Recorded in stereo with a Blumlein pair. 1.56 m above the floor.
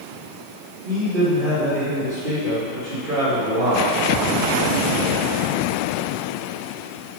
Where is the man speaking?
50° right, 3 m.